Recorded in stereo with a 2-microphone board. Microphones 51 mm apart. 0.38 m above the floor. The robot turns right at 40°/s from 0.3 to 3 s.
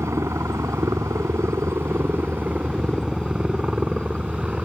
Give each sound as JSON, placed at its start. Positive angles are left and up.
{"t": 0.0, "sound": "a helicopter", "side_deg": -65}